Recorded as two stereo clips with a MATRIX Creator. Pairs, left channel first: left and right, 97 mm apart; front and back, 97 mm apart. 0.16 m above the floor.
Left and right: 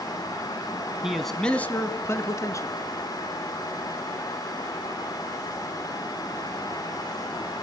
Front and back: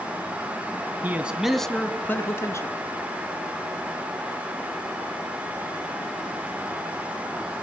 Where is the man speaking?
160° right, 1.0 m; by 2.8 s 50° left, 1.7 m.